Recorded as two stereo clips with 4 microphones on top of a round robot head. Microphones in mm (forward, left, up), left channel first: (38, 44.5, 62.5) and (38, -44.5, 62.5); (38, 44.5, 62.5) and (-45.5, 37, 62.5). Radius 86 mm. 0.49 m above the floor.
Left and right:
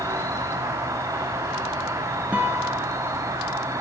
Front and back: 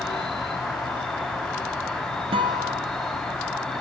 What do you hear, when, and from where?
0.0 s an insect: 70° right, 0.9 m
2.3 s a guitar: 170° right, 0.6 m